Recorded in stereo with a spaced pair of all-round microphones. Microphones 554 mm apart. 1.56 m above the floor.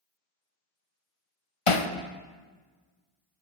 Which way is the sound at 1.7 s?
65° left (ahead or behind).